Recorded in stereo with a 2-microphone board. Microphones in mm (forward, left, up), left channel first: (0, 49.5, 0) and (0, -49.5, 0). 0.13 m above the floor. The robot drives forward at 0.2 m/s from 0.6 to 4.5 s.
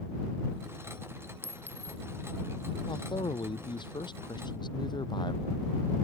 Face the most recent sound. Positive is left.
turn(degrees=50)  # may be behind; listen again after turning